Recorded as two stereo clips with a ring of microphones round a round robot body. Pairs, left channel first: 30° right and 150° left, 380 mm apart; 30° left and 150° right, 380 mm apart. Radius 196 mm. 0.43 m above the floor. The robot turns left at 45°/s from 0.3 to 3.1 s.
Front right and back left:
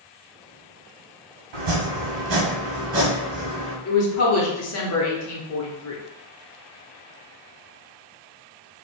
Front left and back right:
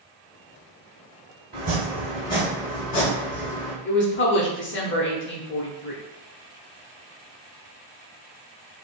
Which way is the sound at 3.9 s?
10° right.